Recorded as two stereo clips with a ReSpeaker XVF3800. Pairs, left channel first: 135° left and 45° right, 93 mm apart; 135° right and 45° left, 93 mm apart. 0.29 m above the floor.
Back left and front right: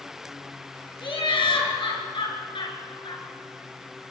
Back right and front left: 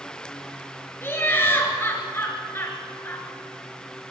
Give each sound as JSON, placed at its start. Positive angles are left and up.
{"t": 1.0, "sound": "laughter", "azimuth_deg": 160, "distance_m": 4.5}